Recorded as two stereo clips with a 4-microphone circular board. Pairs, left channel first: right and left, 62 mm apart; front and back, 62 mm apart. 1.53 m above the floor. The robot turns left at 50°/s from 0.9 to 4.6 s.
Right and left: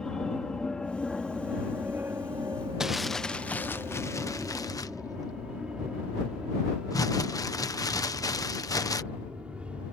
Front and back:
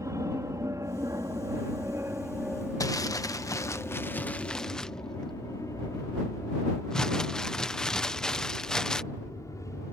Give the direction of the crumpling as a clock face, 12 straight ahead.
12 o'clock.